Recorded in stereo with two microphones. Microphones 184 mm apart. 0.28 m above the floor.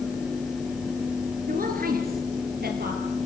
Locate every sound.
1.5 s a woman speaking: 50° right (ahead or behind), 4 m; by 3.0 s 60° right (ahead or behind), 6 m